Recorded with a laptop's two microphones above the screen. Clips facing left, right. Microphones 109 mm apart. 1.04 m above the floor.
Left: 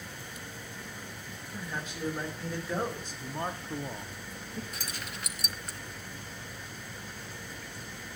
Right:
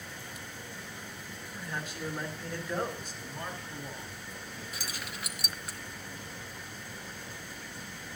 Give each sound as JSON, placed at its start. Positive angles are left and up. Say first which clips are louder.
{"t": 1.5, "sound": "a man speaking", "louder": "left 1 dB", "side_deg": 15, "distance_m": 4.5}
{"t": 3.2, "sound": "a man speaking", "louder": "left 7 dB", "side_deg": 45, "distance_m": 1.5}
{"t": 4.7, "sound": "keys jangling", "louder": "even", "side_deg": 0, "distance_m": 1.1}